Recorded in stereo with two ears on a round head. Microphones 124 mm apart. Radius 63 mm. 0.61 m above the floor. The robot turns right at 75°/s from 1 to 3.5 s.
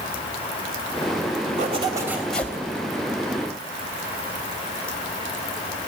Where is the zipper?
55° right, 3 m; by 2.6 s 25° left, 3 m.